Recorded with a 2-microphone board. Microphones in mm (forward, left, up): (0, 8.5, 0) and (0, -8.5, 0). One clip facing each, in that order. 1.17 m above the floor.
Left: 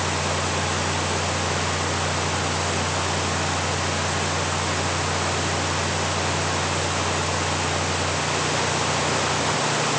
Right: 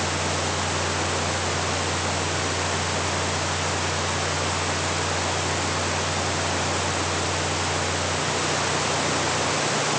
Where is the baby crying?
No baby crying in this recording.